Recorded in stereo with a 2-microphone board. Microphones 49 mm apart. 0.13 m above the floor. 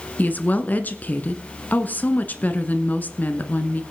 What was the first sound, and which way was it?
A woman speaking, 35° left (ahead or behind).